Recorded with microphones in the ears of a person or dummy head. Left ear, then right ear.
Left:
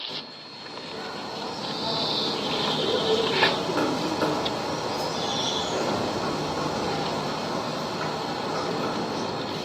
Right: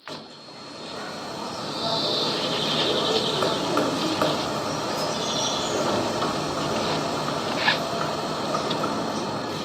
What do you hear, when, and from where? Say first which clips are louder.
0.1 s a bird: left 2 dB; 30° right (ahead or behind), 1.0 m